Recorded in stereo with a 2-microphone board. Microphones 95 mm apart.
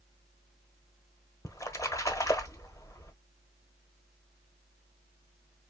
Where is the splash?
35° left (ahead or behind), 1.0 m.